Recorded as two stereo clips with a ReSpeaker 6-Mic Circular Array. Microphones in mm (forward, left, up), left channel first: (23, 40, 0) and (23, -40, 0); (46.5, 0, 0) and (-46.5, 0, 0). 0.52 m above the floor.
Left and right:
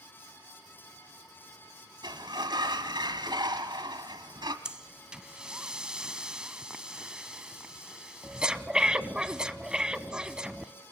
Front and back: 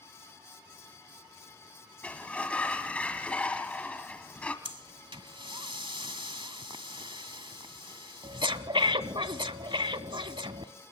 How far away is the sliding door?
About 2.0 m.